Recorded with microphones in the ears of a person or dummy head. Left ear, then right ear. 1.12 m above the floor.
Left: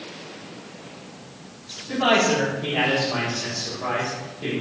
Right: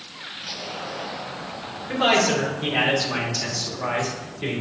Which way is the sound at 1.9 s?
50° right (ahead or behind).